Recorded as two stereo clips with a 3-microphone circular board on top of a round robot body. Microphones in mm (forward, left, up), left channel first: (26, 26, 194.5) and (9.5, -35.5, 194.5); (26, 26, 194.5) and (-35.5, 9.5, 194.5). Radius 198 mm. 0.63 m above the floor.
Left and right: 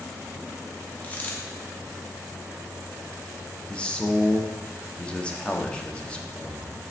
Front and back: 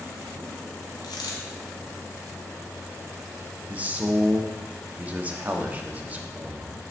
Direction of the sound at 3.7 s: 140° left.